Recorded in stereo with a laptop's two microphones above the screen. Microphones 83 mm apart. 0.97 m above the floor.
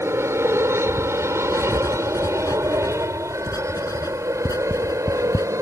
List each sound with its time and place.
0.0 s an aircraft: 30° right (ahead or behind); by 5.6 s 35° right (ahead or behind)
1.5 s writing: 50° left (ahead or behind)